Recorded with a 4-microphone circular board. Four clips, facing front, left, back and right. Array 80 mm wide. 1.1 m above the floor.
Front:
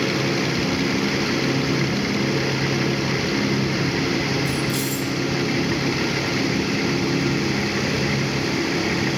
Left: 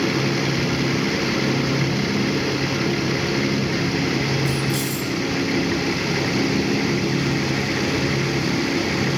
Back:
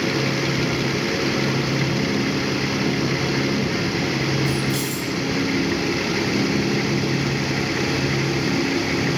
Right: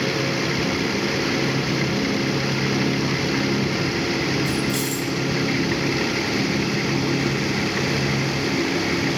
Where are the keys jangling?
165° right, 1.5 m.